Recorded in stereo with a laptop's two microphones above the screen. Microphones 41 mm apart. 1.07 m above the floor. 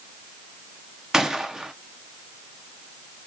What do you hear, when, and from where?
1.1 s a gunshot: 15° right (ahead or behind), 0.5 m